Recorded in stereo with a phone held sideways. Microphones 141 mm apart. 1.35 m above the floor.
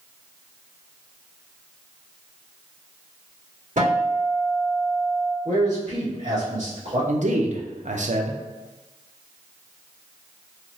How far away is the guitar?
About 2.0 m.